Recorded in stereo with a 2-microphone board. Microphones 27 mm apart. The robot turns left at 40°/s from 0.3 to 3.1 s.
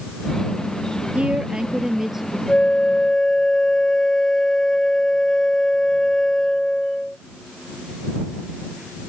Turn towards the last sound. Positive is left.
turn(degrees=20)  # may be behind; listen again after turning